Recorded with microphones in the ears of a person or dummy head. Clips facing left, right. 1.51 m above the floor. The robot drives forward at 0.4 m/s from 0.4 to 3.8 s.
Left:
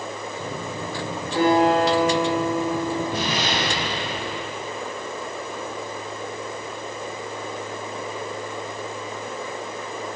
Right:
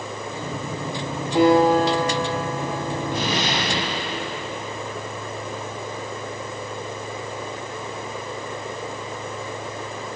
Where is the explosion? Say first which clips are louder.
Right 1 dB; 50° right (ahead or behind), 1.8 m; by 4.5 s 45° right (ahead or behind), 2.0 m.